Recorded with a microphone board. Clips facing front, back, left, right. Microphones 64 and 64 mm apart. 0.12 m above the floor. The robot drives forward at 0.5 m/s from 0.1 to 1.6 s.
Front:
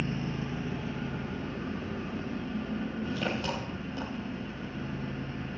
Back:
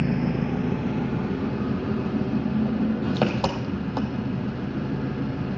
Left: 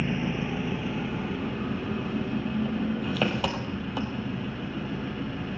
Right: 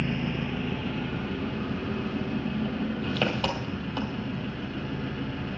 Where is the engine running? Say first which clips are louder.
Back 9 dB, left 1 dB; 170° left, 1.2 m; by 5.6 s 175° left, 1.9 m.